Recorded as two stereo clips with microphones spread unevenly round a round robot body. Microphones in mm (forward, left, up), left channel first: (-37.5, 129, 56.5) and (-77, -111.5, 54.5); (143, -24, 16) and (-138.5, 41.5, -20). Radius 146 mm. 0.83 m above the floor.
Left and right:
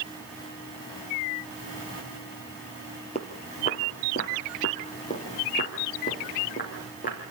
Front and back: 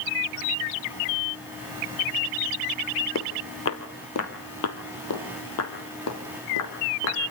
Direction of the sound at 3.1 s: 15° left.